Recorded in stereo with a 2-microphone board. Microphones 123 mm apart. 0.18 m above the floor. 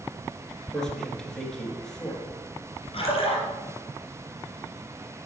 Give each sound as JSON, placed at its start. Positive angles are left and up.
{"t": 0.7, "sound": "a man speaking", "side_deg": 5, "distance_m": 2.0}
{"t": 2.9, "sound": "a splash", "side_deg": 45, "distance_m": 2.5}